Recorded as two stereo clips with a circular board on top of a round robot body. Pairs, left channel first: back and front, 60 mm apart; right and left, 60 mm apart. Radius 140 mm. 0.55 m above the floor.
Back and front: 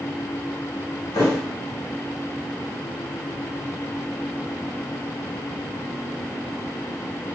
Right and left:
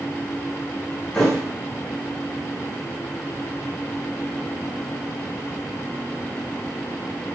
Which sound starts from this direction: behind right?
A thud, at 1.1 s.